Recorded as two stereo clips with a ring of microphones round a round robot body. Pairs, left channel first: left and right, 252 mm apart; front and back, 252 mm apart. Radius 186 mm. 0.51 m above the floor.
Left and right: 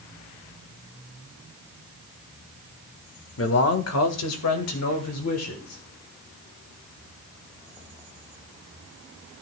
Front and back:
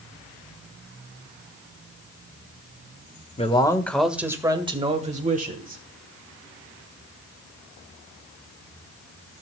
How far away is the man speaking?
About 1.6 m.